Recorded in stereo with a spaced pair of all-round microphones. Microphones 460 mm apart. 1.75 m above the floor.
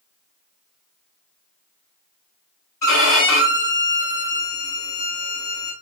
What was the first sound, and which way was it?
A violin, 45° left (ahead or behind).